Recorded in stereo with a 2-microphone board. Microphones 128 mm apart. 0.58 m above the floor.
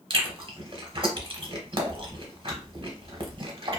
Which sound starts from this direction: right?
Chewing, at 0.1 s.